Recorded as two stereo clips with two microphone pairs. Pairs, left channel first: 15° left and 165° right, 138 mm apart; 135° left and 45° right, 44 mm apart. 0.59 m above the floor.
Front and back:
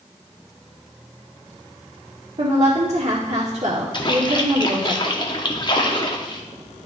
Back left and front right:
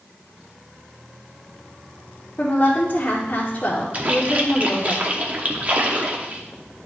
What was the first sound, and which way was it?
A woman speaking, 170° left.